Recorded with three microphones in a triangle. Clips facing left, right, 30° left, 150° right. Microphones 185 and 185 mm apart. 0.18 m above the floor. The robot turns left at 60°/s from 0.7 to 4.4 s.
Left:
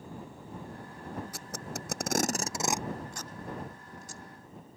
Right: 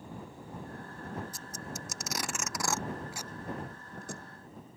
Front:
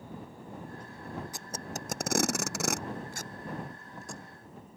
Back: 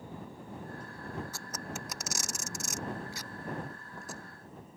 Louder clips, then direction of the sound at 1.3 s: Left 2 dB, front 1 dB; 105° left.